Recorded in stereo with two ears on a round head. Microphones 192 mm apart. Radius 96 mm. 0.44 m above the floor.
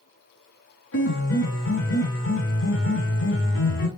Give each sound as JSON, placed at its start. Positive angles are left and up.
{"t": 0.9, "sound": "a piano", "side_deg": 70, "distance_m": 3.0}